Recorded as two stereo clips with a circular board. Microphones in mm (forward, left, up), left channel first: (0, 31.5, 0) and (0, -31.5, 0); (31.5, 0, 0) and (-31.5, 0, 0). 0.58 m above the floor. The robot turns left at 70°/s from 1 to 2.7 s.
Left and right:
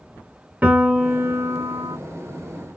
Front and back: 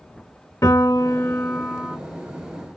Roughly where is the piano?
Ahead right.